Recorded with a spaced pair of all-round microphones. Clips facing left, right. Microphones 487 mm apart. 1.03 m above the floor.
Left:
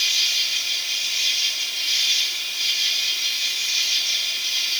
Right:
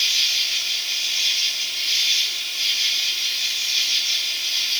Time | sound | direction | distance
0.0 | an insect | 65° left (ahead or behind) | 6 m